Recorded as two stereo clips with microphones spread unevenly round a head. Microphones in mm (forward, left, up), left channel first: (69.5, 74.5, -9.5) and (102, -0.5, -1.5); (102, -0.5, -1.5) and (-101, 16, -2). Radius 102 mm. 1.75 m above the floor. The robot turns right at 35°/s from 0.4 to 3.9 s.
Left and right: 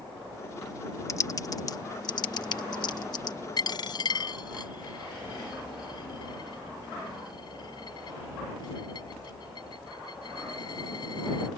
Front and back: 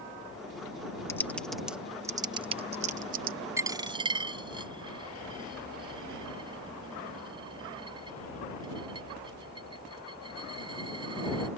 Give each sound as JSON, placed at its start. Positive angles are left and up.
{"t": 1.1, "sound": "typing on a keyboard", "azimuth_deg": 70}
{"t": 3.6, "sound": "a dropped coin", "azimuth_deg": 100}